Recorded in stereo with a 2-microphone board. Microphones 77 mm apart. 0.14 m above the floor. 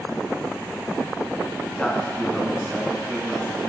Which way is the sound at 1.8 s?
10° left (ahead or behind).